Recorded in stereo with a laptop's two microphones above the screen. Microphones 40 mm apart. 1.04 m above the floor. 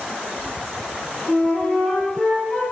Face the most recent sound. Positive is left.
turn(degrees=5)  # may be behind; listen again after turning